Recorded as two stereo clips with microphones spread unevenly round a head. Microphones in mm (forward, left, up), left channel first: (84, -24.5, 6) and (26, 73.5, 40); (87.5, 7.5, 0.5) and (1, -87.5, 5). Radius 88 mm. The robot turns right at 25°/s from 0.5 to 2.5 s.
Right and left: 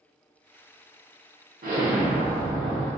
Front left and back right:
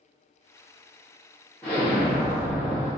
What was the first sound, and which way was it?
An explosion, 125° left.